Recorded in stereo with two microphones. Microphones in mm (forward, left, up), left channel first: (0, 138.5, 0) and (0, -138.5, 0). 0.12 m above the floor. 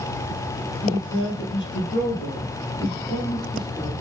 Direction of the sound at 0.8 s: 55° left (ahead or behind).